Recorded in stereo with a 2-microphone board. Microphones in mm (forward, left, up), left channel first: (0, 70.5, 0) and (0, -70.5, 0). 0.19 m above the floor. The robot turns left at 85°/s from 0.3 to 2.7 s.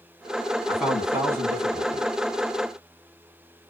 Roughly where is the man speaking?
Centre.